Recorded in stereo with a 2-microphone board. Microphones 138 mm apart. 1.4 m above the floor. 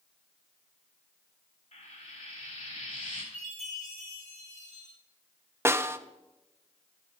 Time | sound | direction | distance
1.7 | frying | 75° left (ahead or behind) | 3.5 m
3.3 | a chime | 70° left (ahead or behind) | 6.5 m
5.7 | a snare drum | 20° right (ahead or behind) | 0.6 m